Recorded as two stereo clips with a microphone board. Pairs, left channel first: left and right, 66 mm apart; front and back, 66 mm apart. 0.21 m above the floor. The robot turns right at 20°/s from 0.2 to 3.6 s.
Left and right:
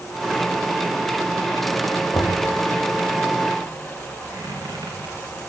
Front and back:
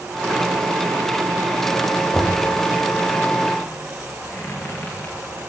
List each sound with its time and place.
2.1 s knocking: 70° left, 6 m; by 2.5 s 75° left, 6 m
4.3 s a squeak: 60° right, 9 m